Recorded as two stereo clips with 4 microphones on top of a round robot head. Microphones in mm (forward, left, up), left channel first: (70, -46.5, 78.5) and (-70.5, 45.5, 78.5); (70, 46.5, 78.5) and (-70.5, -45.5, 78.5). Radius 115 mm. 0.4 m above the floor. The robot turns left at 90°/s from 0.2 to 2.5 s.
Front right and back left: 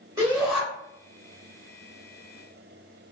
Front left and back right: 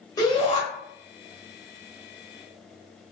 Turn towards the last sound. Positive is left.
turn(degrees=-125)